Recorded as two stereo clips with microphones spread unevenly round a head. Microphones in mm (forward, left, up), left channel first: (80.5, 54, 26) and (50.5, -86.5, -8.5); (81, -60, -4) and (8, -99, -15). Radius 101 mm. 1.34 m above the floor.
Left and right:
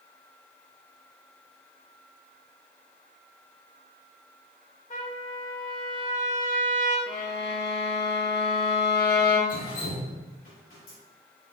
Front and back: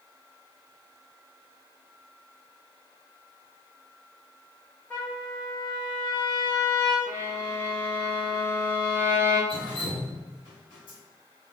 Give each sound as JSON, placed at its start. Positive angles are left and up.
{"t": 4.9, "sound": "a trumpet", "azimuth_deg": 105, "distance_m": 0.9}
{"t": 7.1, "sound": "a violin", "azimuth_deg": 90, "distance_m": 0.5}
{"t": 9.5, "sound": "dripping", "azimuth_deg": 65, "distance_m": 1.6}